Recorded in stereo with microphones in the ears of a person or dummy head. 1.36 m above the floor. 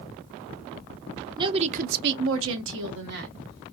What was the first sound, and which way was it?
A woman speaking, 20° right (ahead or behind).